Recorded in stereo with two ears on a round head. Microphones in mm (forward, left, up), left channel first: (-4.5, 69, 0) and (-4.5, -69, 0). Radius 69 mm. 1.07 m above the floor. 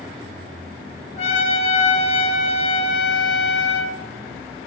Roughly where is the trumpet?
Left.